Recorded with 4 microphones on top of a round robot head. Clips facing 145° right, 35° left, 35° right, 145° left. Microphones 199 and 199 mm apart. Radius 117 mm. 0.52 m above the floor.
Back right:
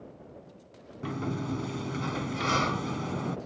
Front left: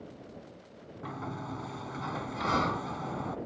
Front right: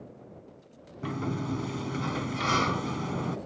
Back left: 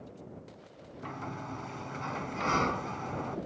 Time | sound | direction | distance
1.0 | a sliding door | 85° right | ?